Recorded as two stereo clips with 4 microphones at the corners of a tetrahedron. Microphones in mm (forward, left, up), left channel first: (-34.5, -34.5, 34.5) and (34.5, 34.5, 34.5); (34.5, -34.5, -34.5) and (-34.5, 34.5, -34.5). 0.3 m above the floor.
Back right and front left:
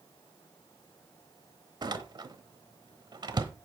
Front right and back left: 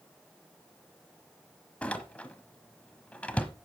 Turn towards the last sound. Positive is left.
turn(degrees=25)